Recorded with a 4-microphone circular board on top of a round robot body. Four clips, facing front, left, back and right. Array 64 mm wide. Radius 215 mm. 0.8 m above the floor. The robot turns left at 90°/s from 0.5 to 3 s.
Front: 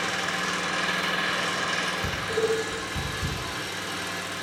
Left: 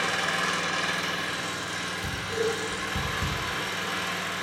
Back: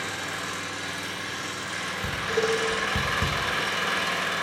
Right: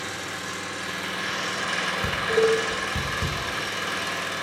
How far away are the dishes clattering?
About 1.2 m.